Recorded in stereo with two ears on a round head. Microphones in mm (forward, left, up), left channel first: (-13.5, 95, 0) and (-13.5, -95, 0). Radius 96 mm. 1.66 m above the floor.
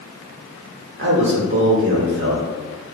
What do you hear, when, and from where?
1.0 s a man speaking: 60° right (ahead or behind), 1.1 m